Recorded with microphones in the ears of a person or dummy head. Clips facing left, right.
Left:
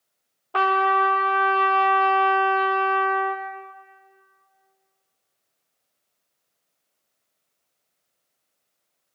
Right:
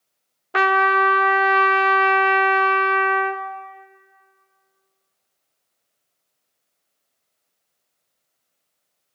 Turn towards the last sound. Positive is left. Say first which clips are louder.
# right 2 dB
turn(degrees=-20)  # may be behind; listen again after turning